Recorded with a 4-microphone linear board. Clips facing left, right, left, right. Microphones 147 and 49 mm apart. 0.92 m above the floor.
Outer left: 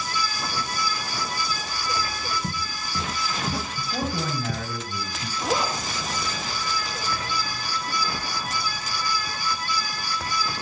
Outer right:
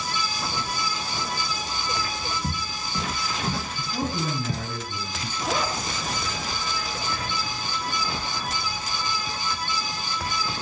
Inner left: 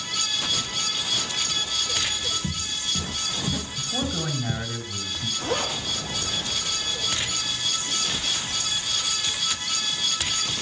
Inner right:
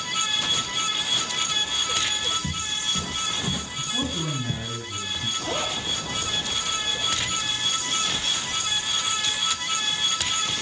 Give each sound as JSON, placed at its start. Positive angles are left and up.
{"t": 2.4, "sound": "footsteps", "side_deg": 10, "distance_m": 3.0}
{"t": 3.8, "sound": "a man speaking", "side_deg": 80, "distance_m": 7.5}
{"t": 5.4, "sound": "a zipper", "side_deg": 50, "distance_m": 7.0}